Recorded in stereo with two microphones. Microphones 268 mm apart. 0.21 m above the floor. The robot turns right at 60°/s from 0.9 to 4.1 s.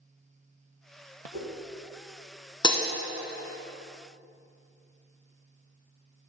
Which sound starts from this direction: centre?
Breaking glass, at 2.6 s.